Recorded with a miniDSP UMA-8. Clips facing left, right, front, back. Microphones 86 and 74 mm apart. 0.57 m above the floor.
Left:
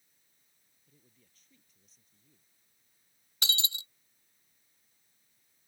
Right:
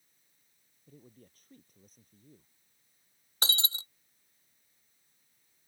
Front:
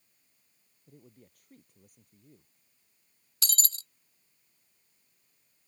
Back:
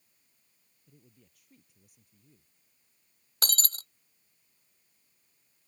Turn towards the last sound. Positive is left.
turn(degrees=-145)